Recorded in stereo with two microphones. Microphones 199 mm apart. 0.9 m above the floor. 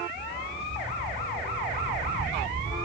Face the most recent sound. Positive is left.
turn(degrees=-65)  # may be behind; listen again after turning